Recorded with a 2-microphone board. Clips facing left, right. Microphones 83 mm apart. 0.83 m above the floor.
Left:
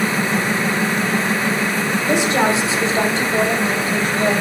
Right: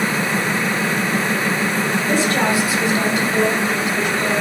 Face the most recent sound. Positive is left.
turn(degrees=35)  # may be behind; listen again after turning